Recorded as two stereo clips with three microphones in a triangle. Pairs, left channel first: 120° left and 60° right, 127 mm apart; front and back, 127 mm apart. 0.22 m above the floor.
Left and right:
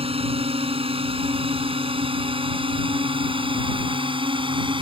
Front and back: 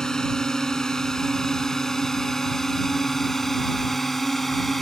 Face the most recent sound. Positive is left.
turn(degrees=-90)